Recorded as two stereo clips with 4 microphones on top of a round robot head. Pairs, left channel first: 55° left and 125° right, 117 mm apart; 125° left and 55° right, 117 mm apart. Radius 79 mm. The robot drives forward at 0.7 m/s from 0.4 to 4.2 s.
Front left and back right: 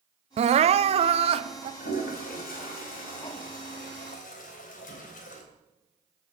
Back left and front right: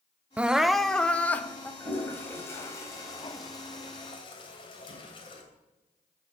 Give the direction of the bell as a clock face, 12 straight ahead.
I don't hear a bell.